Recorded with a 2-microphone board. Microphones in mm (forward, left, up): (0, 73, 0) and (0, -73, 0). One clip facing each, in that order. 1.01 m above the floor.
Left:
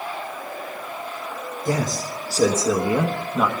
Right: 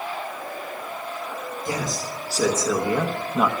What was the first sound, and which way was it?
A man speaking, 45° left (ahead or behind).